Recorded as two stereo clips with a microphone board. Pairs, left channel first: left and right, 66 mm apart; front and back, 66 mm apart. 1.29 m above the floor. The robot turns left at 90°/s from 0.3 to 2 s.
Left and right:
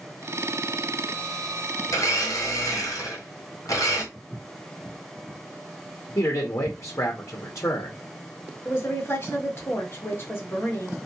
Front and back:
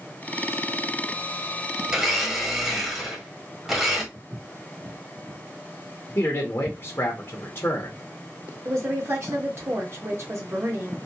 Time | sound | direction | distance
1.9 | a blender | 110° left | 1.0 m
4.1 | footsteps | 150° left | 1.8 m
6.2 | a man speaking | 45° left | 0.7 m
8.7 | a woman speaking | 140° left | 1.4 m